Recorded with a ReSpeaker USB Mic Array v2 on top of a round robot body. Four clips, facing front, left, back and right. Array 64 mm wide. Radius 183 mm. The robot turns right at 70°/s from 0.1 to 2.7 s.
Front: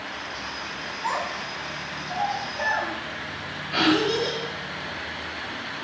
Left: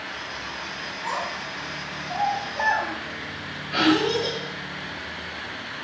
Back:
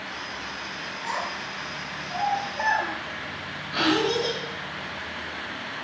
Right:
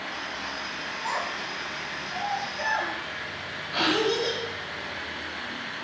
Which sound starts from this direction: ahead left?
A gasp, at 3.7 s.